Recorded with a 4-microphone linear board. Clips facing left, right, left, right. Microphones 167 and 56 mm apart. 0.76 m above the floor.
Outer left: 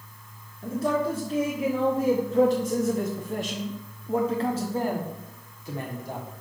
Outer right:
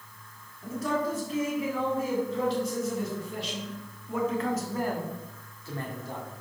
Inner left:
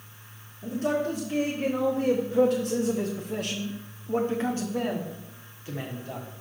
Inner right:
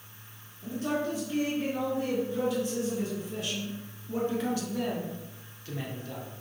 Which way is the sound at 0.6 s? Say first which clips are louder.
Outer left 4 dB, inner left 4 dB; 30° left (ahead or behind).